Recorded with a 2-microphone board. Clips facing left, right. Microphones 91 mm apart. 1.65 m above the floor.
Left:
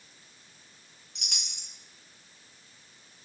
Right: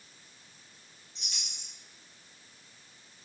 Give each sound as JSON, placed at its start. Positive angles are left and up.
{"t": 1.1, "sound": "a chime", "side_deg": 75, "distance_m": 1.3}